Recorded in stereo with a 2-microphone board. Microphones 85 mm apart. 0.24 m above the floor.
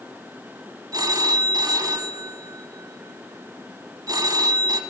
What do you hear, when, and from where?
0.9 s a phone ringing: 55° right (ahead or behind), 0.9 m